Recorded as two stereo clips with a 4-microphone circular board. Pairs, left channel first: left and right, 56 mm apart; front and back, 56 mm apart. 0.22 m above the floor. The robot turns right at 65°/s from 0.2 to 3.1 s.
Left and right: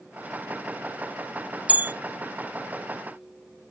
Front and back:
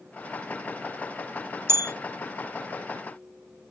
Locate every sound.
1.7 s a bell: 155° right, 0.6 m; by 1.9 s 140° right, 0.6 m